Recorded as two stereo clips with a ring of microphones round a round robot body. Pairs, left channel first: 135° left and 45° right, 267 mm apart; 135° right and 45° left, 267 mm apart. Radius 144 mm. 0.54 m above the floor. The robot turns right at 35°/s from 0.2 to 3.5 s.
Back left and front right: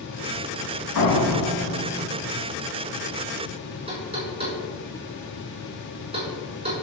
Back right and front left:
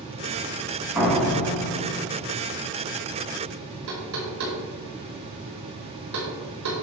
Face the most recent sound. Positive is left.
turn(degrees=25)